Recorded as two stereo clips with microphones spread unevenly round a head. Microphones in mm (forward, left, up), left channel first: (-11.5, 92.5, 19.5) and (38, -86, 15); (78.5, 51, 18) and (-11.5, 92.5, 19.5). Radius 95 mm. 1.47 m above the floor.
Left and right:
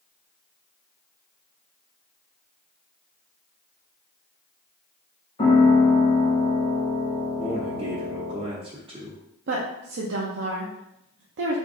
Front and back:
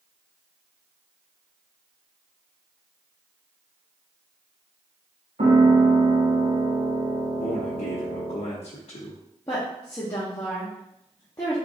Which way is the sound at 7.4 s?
10° right.